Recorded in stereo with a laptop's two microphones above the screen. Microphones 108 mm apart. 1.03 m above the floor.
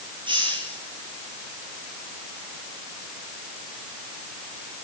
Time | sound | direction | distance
0.3 | a hiss | 50° right (ahead or behind) | 10 m